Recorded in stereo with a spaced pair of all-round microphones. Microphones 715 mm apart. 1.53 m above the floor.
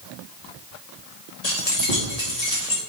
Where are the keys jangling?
65° left (ahead or behind), 2.5 m.